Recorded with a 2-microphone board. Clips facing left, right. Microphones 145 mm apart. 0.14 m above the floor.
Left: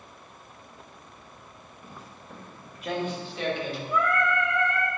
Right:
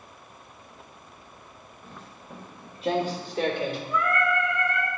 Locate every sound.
1.8 s footsteps: 10° left (ahead or behind), 1.2 m; by 3.8 s 50° right (ahead or behind), 2 m
3.9 s singing: 65° left (ahead or behind), 3 m